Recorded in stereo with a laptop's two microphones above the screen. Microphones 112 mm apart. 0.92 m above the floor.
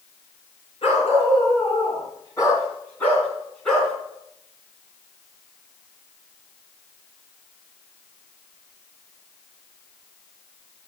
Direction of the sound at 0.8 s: 60° left (ahead or behind).